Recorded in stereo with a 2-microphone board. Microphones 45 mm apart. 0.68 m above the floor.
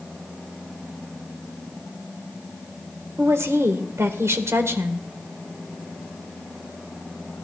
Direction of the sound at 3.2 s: 70° right (ahead or behind).